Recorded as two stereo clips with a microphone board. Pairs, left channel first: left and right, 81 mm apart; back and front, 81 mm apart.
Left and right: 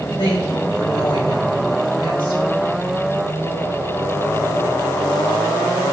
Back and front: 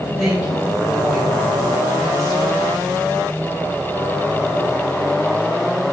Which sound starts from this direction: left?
A woman speaking, at 0.2 s.